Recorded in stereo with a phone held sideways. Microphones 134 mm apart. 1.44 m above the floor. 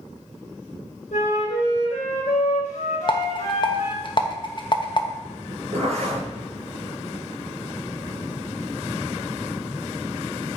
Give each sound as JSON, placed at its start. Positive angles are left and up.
{"t": 1.1, "sound": "a flute", "side_deg": 80, "distance_m": 3.5}
{"t": 3.1, "sound": "a rattle", "side_deg": 40, "distance_m": 1.0}
{"t": 5.7, "sound": "a zipper", "side_deg": -55, "distance_m": 4.5}